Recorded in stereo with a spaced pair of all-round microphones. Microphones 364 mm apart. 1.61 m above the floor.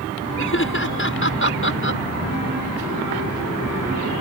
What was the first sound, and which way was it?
Laughter, 35° left (ahead or behind).